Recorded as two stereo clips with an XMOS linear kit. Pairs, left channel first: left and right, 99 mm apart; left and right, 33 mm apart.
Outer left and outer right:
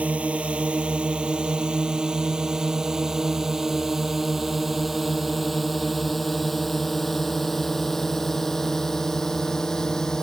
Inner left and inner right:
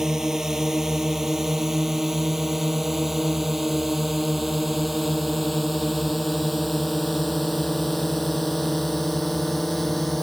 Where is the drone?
15° right (ahead or behind); by 10.2 s 5° left (ahead or behind).